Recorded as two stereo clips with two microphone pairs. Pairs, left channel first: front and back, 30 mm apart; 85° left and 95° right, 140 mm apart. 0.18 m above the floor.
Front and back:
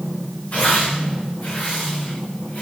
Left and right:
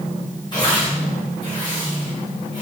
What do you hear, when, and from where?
0.5 s tearing paper: 30° left, 8 m